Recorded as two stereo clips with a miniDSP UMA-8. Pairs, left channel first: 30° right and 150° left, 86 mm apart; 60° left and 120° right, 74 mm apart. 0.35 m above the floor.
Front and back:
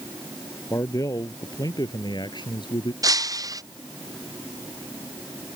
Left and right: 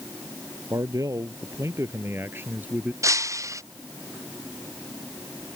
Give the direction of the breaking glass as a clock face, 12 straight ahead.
5 o'clock.